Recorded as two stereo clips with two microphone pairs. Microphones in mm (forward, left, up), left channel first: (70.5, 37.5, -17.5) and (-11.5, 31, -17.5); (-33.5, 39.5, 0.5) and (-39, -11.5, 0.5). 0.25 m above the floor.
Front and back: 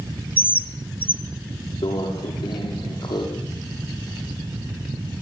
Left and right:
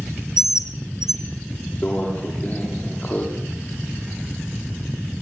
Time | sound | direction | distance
0.4 | a bird | 70° left | 1.7 m
1.8 | a microwave | 25° left | 9 m